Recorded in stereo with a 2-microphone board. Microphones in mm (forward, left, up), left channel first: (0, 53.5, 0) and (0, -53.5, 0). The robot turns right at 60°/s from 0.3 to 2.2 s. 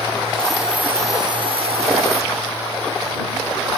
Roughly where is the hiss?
Behind.